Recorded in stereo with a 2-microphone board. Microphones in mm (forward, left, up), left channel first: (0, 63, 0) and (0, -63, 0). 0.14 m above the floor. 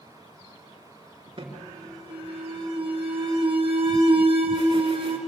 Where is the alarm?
45° right (ahead or behind), 3.5 m.